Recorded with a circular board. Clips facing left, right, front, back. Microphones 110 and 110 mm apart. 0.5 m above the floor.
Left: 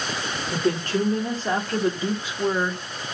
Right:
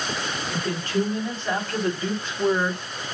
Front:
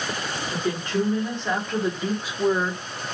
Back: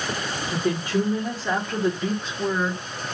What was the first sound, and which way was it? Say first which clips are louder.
A woman speaking: left 3 dB, back 2 dB; 105° left.